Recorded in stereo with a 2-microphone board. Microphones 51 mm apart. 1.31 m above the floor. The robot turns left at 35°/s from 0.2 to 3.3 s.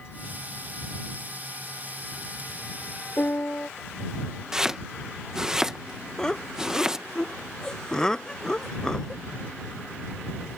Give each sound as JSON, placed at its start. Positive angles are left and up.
{"t": 3.2, "sound": "a piano", "side_deg": 40}
{"t": 4.5, "sound": "chopping", "side_deg": -15}
{"t": 6.2, "sound": "laughter", "side_deg": 15}